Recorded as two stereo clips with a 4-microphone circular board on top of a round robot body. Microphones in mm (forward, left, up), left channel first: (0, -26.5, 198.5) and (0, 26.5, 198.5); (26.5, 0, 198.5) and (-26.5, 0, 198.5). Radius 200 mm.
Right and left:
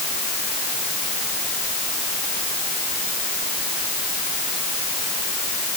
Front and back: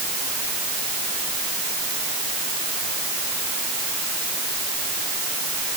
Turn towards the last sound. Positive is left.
No sound to turn to.